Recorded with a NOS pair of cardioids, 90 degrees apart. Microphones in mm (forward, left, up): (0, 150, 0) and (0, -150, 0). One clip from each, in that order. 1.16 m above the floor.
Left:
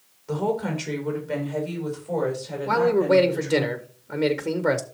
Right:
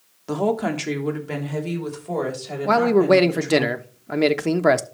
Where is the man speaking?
40° right, 1.2 m.